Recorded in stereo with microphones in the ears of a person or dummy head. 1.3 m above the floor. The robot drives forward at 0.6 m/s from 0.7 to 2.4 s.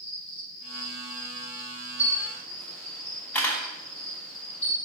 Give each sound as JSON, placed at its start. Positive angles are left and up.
{"t": 0.0, "sound": "an insect", "side_deg": -40, "distance_m": 4.0}
{"t": 2.0, "sound": "a camera shutter", "side_deg": 5, "distance_m": 1.0}